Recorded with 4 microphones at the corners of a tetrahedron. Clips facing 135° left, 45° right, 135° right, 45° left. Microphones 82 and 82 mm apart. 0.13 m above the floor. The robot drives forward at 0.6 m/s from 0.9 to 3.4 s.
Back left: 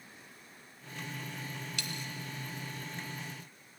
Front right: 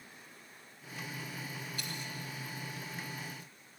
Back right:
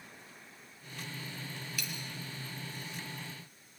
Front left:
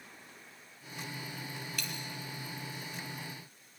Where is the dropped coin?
140° left, 1.1 m; by 2.0 s 145° left, 1.3 m.